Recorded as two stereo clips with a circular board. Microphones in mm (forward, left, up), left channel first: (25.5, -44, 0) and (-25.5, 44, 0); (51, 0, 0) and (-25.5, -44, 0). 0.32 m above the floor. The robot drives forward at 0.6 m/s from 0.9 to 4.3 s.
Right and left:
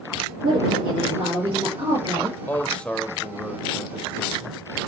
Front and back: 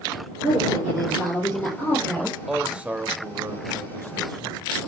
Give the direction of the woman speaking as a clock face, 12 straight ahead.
9 o'clock.